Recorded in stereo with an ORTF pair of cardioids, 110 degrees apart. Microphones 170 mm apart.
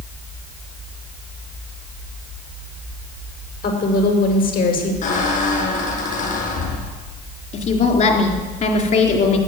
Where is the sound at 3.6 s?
60° left, 6 m.